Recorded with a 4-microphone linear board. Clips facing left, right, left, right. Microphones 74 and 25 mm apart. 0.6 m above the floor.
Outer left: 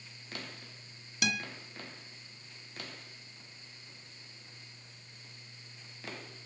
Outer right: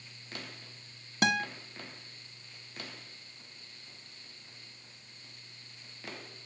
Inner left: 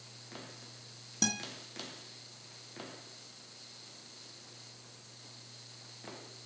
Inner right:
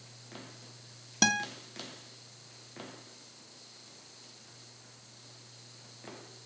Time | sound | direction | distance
1.2 | a guitar | 35° right (ahead or behind) | 1.0 m